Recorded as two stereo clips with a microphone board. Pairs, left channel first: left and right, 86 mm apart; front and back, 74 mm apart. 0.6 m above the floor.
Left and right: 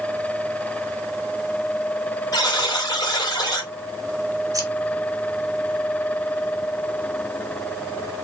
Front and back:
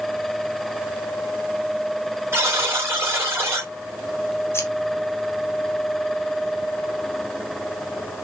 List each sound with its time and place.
2.3 s a buzzer: 125° left, 2.5 m
4.5 s scissors: 50° right, 1.0 m